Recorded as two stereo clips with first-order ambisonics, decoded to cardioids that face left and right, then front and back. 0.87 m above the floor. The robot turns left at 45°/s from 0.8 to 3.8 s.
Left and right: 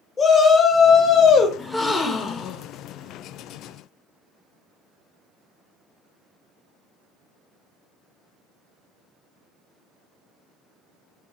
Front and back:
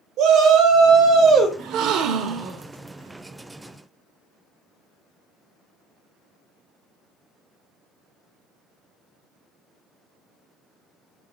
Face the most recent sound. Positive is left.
turn(degrees=80)